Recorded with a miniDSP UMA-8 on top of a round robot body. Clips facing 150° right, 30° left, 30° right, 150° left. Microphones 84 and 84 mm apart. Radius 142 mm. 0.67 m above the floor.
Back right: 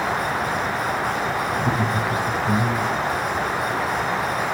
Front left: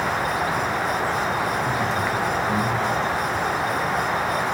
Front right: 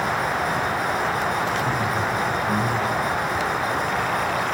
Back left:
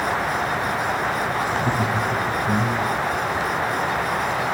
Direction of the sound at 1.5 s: 165° right.